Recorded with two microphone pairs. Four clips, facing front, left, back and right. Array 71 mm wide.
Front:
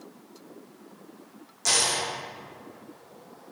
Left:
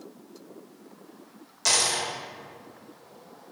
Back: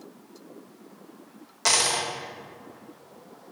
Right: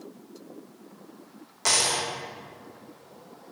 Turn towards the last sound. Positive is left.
turn(degrees=-150)